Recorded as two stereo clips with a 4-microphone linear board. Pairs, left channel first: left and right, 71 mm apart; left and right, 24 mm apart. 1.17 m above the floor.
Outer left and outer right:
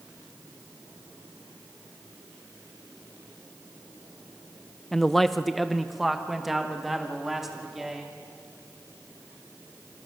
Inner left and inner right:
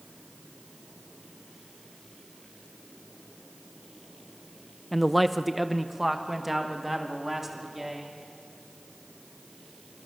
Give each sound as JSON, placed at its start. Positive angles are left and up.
{"t": 4.9, "sound": "a man speaking", "side_deg": 5, "distance_m": 0.7}